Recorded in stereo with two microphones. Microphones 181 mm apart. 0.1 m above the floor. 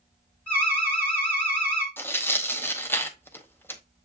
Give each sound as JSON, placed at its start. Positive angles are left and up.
{"t": 0.5, "sound": "an alarm", "side_deg": 10, "distance_m": 1.8}
{"t": 2.0, "sound": "tearing paper", "side_deg": 10, "distance_m": 0.5}